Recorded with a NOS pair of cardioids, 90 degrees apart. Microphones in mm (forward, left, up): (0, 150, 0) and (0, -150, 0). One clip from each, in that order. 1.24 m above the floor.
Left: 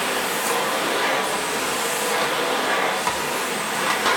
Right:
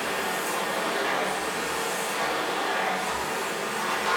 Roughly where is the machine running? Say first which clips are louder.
Left 5 dB; ahead left.